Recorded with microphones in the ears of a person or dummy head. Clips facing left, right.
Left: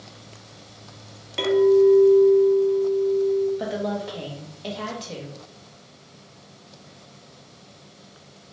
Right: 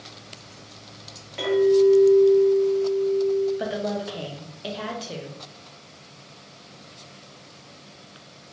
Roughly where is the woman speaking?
Centre.